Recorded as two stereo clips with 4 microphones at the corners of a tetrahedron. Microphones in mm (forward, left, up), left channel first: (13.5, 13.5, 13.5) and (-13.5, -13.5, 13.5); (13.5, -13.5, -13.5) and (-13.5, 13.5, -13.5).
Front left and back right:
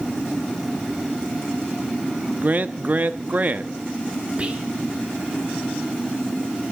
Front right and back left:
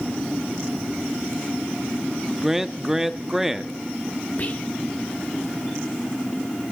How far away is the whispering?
About 1.9 m.